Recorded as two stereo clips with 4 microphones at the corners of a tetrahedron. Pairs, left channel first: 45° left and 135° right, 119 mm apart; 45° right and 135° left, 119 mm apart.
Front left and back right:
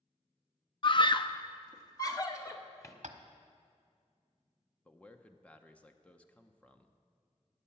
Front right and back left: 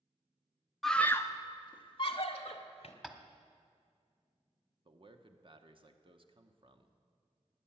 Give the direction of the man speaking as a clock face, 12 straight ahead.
8 o'clock.